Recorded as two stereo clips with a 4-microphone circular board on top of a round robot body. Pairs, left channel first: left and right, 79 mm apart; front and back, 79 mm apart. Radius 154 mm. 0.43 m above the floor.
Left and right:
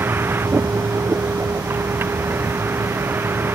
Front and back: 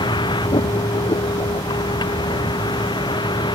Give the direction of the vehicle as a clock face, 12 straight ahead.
1 o'clock.